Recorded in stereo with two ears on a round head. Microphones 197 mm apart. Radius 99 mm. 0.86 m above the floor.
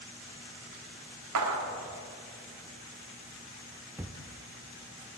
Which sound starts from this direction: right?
A clap, at 1.4 s.